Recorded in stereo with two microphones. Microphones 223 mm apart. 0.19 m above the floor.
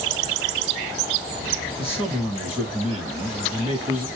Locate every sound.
1.8 s a man speaking: 5° right (ahead or behind), 1.8 m